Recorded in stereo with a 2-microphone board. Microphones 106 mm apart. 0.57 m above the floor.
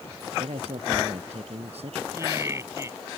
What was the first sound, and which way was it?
A man speaking, 75° right (ahead or behind).